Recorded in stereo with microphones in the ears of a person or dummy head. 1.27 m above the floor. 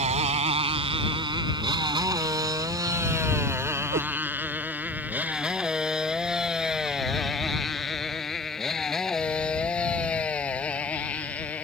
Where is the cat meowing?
35° right (ahead or behind).